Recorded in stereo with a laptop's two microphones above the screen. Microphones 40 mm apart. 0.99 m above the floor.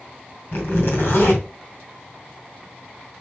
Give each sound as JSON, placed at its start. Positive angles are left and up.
{"t": 0.5, "sound": "a zipper", "side_deg": 65, "distance_m": 2.0}